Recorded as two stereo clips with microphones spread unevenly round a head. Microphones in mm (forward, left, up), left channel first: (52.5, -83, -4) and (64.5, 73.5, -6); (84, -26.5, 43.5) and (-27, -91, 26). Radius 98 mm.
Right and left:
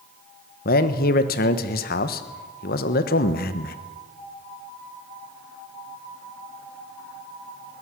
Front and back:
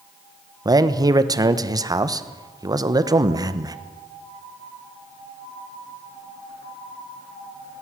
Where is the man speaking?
100° right, 1.3 m.